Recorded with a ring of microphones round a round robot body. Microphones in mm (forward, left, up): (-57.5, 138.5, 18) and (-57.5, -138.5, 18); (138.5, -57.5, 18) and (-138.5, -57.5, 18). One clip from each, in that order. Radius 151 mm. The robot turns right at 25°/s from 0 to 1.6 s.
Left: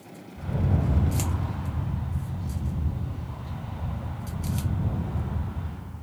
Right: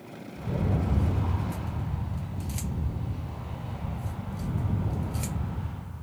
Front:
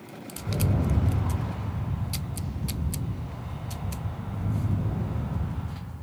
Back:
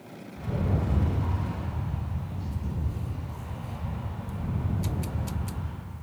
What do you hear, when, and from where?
0.4 s a rattle: 105° right, 1.8 m; by 5.7 s 75° right, 1.8 m